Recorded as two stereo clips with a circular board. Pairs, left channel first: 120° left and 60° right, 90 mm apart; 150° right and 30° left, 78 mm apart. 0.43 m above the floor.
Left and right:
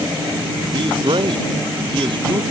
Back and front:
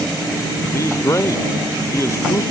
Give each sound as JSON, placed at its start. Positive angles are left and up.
{"t": 0.7, "sound": "a man speaking", "azimuth_deg": -95}